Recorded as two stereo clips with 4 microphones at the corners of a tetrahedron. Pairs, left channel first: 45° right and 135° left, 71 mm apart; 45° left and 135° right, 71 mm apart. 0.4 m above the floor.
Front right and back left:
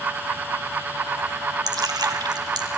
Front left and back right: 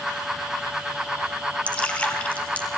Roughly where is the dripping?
Behind left.